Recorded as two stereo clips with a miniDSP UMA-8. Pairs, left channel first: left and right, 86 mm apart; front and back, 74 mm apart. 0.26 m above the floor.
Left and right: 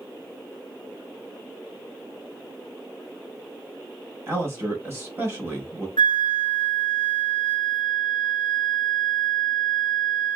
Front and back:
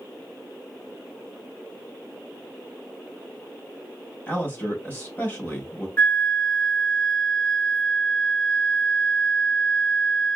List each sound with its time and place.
4.3 s a man speaking: 50° right, 1.3 m
6.0 s a flute: 70° left, 0.5 m